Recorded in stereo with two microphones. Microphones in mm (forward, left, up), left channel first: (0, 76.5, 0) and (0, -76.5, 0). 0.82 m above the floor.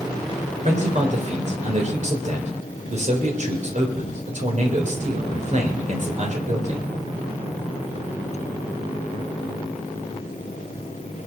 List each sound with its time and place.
0.7 s a man speaking: 50° right (ahead or behind), 3.5 m